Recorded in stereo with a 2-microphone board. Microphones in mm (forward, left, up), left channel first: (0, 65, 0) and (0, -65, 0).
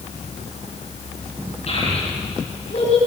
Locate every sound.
1.7 s a child speaking: 55° left (ahead or behind), 9.5 m; by 3.0 s 60° left (ahead or behind), 7.5 m